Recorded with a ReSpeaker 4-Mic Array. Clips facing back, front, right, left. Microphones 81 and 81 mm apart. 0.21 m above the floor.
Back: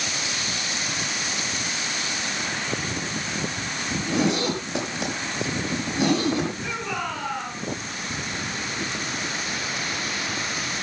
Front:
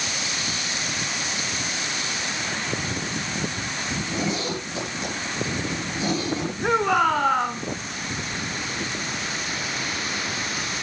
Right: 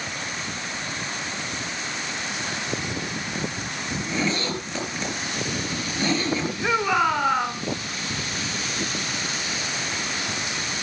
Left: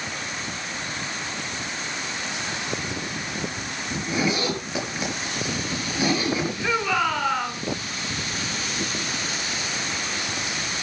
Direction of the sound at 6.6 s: 20° right.